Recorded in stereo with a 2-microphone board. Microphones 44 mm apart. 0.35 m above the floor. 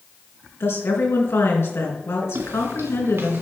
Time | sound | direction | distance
0.6 | a woman speaking | 70° left (ahead or behind) | 3.5 m
2.4 | footsteps | 65° right (ahead or behind) | 1.3 m